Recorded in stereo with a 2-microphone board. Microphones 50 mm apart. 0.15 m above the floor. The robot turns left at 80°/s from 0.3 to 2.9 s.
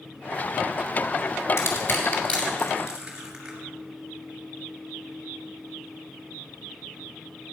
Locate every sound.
1.6 s crushing: 60° left (ahead or behind), 3 m; by 3.6 s 15° right (ahead or behind), 3 m